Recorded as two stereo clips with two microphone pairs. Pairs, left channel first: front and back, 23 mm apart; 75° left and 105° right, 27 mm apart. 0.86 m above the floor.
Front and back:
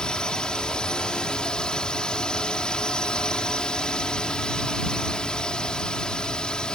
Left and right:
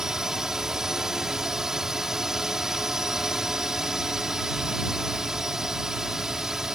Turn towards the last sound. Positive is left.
turn(degrees=-40)